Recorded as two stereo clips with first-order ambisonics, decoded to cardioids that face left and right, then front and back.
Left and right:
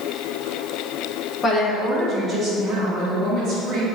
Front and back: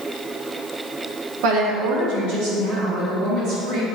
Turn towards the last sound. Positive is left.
turn(degrees=-150)